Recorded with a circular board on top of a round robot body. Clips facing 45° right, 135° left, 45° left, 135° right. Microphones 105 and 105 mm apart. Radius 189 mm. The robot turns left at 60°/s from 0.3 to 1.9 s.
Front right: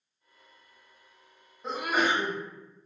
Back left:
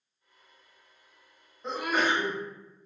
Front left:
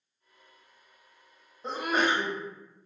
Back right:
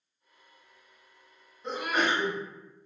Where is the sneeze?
40° left, 1.2 m; by 2.4 s 25° left, 1.2 m.